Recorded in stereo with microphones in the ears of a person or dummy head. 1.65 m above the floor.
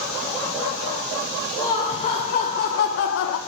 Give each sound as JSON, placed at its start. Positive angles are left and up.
{"t": 1.6, "sound": "laughter", "side_deg": 25, "distance_m": 1.2}